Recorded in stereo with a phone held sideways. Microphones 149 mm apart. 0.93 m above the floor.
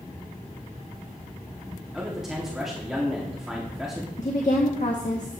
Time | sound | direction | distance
1.9 | a man speaking | 5° right (ahead or behind) | 2 m
4.2 | a woman speaking | 60° left (ahead or behind) | 1.4 m